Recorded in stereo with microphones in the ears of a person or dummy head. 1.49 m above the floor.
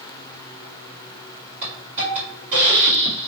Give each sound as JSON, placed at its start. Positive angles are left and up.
{"t": 1.6, "sound": "a hiss", "side_deg": -45, "distance_m": 1.5}